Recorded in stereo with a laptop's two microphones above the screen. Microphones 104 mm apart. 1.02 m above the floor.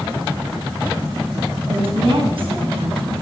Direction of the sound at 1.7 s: 65° right (ahead or behind).